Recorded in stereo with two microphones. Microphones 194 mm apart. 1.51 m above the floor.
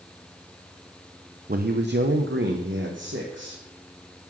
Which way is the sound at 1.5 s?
45° right (ahead or behind).